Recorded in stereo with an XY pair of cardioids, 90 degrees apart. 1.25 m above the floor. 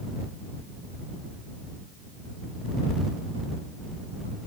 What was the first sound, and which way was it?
Only background noise.